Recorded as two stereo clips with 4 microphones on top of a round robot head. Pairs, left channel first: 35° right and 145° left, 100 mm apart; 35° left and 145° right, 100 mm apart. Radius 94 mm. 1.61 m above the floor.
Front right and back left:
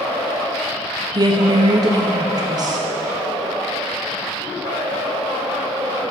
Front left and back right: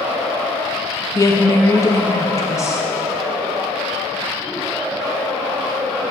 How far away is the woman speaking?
About 0.7 m.